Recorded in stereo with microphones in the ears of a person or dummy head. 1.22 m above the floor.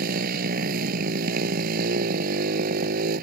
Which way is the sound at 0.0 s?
50° right (ahead or behind).